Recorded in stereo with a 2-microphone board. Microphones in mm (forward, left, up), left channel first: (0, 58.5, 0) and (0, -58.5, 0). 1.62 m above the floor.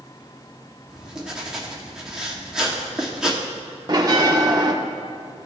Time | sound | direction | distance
0.9 | writing | 5° right (ahead or behind) | 1.3 m
3.9 | a bell | 35° right (ahead or behind) | 0.8 m